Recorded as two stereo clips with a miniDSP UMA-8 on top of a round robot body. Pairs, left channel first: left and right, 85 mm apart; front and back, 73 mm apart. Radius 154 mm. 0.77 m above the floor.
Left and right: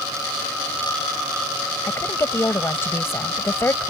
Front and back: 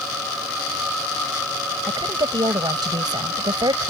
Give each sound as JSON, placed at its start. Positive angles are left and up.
{"t": 1.9, "sound": "a woman speaking", "azimuth_deg": 150}